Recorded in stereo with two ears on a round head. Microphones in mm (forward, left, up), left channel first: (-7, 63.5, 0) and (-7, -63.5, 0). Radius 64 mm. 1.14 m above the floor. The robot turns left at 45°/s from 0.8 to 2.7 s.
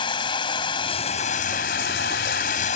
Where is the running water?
145° left; by 2.8 s 60° left.